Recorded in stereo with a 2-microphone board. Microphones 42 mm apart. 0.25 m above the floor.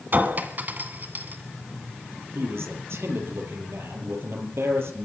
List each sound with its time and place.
0.1 s a clink: 50° right (ahead or behind), 1.8 m
2.4 s a man speaking: 75° right (ahead or behind), 5.5 m